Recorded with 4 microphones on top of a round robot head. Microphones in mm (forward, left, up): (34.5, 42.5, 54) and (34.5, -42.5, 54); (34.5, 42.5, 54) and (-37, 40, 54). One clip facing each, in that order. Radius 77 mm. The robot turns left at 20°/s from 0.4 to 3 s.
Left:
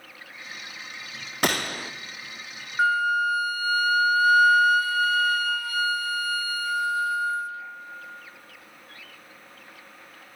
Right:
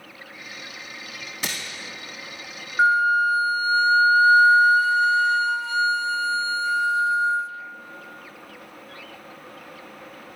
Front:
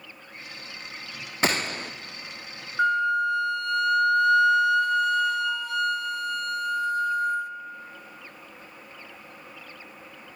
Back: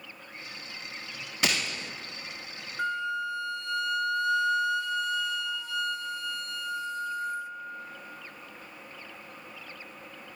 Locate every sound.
1.4 s a gunshot: 55° left, 0.6 m; by 1.9 s 50° left, 0.6 m
2.8 s a flute: 25° right, 0.7 m; by 7.5 s 30° right, 0.7 m